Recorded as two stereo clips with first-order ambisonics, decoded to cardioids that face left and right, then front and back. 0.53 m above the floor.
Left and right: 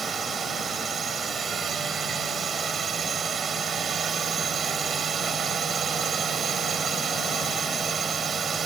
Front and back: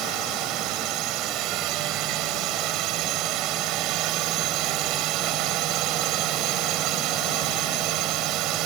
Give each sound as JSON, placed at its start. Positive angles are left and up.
{"t": 0.0, "sound": "a drone", "azimuth_deg": -155}